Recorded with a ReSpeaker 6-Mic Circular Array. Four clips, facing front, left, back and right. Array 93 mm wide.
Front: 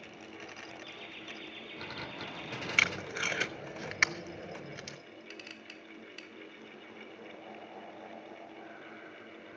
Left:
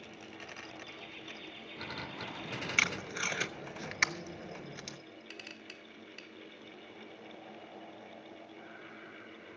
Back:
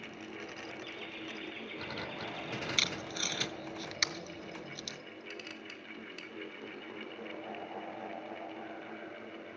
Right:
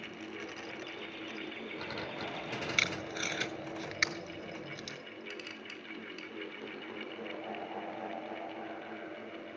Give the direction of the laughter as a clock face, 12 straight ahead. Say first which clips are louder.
Right 5 dB, back 3 dB; 5 o'clock.